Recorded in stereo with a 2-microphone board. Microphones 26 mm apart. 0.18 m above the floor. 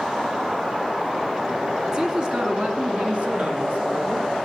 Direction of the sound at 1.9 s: 30° right (ahead or behind).